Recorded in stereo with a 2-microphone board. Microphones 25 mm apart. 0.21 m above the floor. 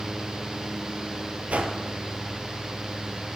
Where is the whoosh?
80° right, 0.9 m.